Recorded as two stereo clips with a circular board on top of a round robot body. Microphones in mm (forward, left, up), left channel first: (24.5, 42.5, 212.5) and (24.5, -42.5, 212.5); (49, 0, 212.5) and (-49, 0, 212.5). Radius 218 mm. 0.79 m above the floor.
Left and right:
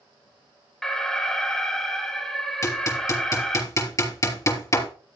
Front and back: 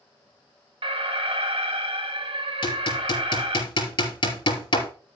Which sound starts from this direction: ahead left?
Hammering, at 2.6 s.